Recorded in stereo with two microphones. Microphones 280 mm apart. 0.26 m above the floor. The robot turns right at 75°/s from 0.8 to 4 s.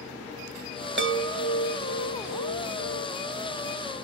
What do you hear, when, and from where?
1.0 s a chime: 105° right, 0.5 m; by 3.1 s 55° left, 0.5 m